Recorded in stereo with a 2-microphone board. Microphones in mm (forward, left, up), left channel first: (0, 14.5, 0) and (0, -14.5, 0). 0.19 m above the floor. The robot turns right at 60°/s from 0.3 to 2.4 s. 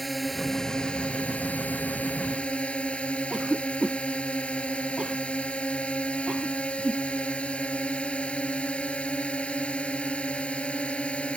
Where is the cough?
30° right (ahead or behind).